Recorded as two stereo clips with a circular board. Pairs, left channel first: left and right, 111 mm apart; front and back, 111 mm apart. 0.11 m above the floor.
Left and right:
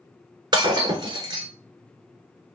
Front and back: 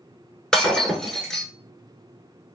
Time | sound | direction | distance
0.5 | breaking glass | 80° right | 1.0 m